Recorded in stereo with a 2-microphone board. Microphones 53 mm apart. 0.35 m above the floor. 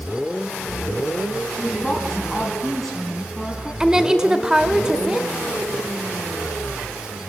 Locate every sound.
1.6 s a woman speaking: centre (ahead or behind), 3 m
3.8 s a woman speaking: 10° right (ahead or behind), 1.2 m